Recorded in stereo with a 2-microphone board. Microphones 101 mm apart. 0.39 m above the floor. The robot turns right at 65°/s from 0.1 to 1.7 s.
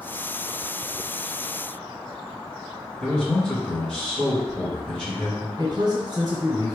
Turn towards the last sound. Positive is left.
turn(degrees=-40)  # may be behind; listen again after turning